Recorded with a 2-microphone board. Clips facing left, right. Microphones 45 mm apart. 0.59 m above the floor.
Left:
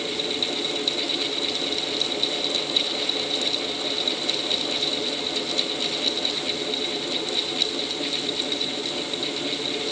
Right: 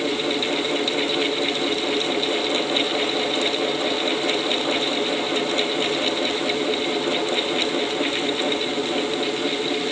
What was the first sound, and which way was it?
Only background noise.